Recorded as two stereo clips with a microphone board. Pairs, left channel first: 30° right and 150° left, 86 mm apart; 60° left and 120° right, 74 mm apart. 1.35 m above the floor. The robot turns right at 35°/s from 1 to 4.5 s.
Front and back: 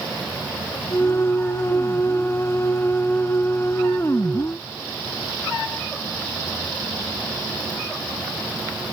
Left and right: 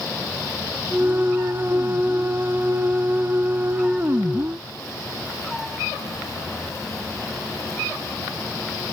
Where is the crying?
I don't hear crying.